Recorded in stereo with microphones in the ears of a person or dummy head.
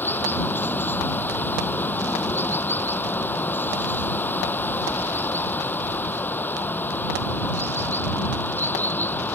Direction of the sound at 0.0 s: 15° left (ahead or behind).